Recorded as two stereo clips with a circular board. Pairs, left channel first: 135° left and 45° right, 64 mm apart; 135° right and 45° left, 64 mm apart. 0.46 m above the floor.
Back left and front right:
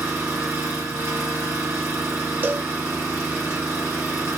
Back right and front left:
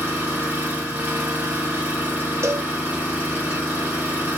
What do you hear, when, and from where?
0.0 s an engine running: 10° right, 1.9 m
2.4 s a cowbell: 10° left, 0.5 m